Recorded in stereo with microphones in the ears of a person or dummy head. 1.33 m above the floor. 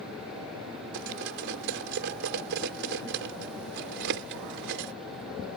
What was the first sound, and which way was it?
Cutlery clinking, 65° right (ahead or behind).